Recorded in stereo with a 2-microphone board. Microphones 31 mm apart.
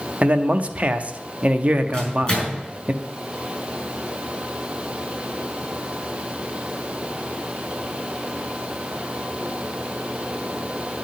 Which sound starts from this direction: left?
A microwave, at 1.9 s.